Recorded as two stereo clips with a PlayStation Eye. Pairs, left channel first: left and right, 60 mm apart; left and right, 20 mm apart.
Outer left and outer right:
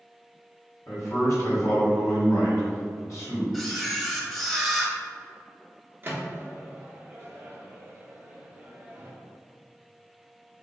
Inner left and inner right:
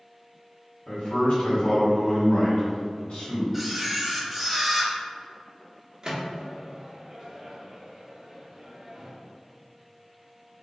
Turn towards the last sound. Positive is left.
turn(degrees=-30)  # may be behind; listen again after turning